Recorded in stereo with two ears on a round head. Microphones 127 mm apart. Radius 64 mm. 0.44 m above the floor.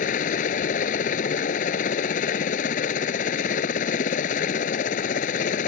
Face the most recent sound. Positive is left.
turn(degrees=60)  # may be behind; listen again after turning